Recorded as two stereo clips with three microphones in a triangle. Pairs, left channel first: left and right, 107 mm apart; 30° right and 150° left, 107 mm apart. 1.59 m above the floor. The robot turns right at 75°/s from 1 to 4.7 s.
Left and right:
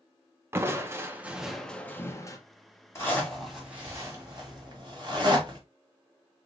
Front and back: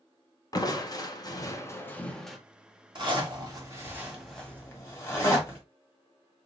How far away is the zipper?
About 1.9 m.